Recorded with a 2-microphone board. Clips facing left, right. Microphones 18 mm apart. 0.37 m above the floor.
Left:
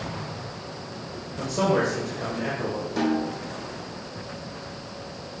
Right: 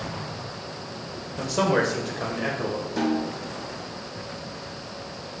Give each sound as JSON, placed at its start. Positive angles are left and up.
{"t": 1.4, "sound": "a man speaking", "side_deg": -35, "distance_m": 0.9}
{"t": 3.0, "sound": "a snare drum", "side_deg": 10, "distance_m": 3.0}